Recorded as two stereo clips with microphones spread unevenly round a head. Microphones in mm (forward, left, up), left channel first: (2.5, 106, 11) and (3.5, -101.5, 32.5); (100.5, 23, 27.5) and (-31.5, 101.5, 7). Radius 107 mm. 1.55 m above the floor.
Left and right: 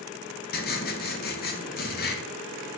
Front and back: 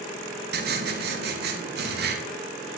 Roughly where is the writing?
Behind left.